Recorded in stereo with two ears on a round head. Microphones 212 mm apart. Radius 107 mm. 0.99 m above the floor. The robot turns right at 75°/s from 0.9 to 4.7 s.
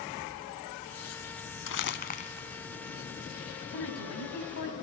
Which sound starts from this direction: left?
Crumpling, at 1.7 s.